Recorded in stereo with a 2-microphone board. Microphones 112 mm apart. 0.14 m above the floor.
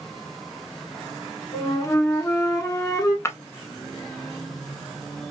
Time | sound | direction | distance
1.5 | a flute | 30° left (ahead or behind) | 1.2 m
3.2 | breaking glass | 25° left (ahead or behind) | 0.7 m